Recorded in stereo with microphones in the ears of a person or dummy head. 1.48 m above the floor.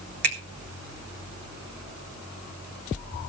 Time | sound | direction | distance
0.2 | a finger snap | 60° right (ahead or behind) | 1.5 m